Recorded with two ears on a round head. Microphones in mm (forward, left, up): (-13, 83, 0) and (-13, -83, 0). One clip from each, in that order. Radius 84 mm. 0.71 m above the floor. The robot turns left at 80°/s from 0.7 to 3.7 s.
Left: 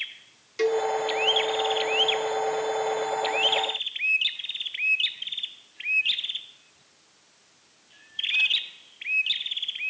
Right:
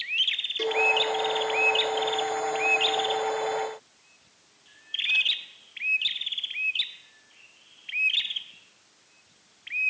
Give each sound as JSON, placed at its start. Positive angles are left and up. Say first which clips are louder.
{"t": 0.6, "sound": "a cowbell", "louder": "left 2 dB", "side_deg": 25, "distance_m": 1.4}